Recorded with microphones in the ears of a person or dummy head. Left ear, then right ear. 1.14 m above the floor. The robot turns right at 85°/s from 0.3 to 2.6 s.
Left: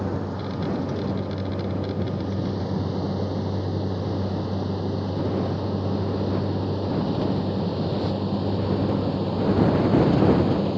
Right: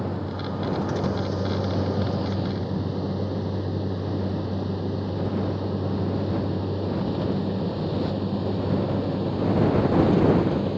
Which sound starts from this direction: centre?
A vehicle, at 0.0 s.